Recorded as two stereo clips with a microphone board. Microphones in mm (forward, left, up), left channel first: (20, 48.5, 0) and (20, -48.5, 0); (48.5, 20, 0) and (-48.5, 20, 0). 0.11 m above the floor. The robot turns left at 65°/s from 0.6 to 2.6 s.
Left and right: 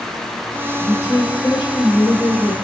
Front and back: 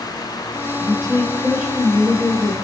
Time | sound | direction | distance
0.8 | a woman speaking | 160° left | 1.8 m